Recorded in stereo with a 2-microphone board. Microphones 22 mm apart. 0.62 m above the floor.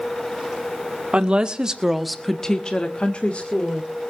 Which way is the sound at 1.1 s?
50° right (ahead or behind).